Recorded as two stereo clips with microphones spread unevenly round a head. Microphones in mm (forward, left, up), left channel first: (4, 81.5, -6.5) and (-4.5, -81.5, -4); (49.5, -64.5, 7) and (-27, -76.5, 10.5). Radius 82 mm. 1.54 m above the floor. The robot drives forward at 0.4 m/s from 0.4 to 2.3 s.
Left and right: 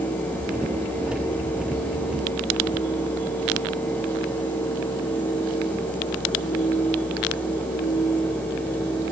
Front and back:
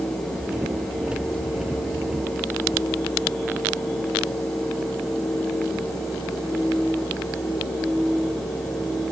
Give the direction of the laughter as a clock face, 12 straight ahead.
No laughter in this recording.